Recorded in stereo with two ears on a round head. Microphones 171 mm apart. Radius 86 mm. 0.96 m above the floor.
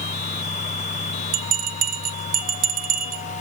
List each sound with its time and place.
1.3 s a bell: 50° right (ahead or behind), 1.1 m